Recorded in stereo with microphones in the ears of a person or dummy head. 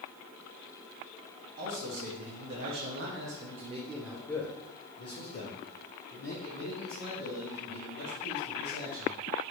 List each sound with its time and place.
1.6 s a man speaking: 80° right, 1.6 m; by 9.2 s 65° left (ahead or behind), 3 m